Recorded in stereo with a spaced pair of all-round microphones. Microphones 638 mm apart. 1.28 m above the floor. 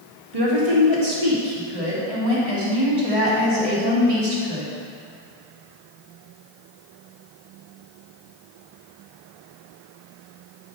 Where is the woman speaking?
55° right (ahead or behind), 2.5 m.